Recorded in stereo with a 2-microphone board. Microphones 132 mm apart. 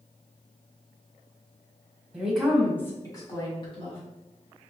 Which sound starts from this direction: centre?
A woman speaking, at 2.1 s.